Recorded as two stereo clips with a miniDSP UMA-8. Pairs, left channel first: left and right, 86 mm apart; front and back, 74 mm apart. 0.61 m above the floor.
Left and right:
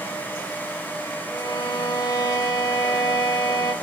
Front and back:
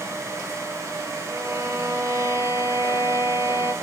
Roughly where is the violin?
Behind left.